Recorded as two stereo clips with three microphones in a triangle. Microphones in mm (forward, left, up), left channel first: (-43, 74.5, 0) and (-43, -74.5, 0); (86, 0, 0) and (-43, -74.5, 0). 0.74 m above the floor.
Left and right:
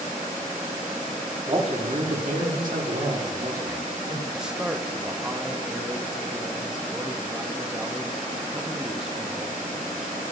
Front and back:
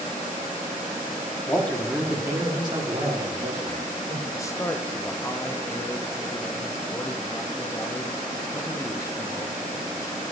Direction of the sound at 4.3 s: 10° right.